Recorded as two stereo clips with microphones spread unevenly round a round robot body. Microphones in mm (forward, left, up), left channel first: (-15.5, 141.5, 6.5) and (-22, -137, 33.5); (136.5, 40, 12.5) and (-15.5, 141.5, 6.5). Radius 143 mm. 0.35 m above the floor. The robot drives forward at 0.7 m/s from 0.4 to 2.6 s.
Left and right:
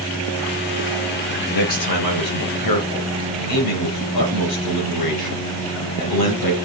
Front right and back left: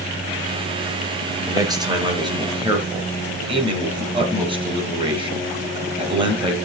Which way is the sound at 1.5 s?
75° left.